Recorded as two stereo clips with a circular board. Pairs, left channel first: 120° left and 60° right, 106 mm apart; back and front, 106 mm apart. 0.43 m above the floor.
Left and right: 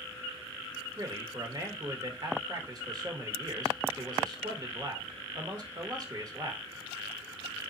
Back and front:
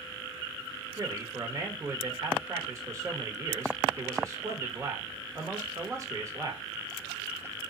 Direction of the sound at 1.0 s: 40° right.